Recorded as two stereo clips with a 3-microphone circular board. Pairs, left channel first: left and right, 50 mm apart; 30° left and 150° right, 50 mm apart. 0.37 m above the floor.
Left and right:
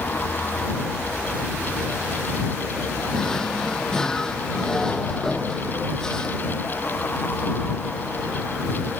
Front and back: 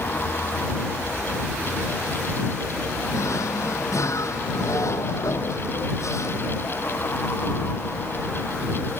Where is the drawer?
15° left.